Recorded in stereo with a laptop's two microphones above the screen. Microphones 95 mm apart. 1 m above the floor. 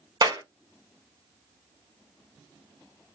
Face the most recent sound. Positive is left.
turn(degrees=-45)  # may be behind; listen again after turning